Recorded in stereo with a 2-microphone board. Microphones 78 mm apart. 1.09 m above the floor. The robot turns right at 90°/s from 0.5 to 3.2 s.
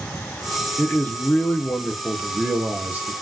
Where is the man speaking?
20° left (ahead or behind), 0.7 m; by 3.1 s 20° right (ahead or behind), 0.7 m.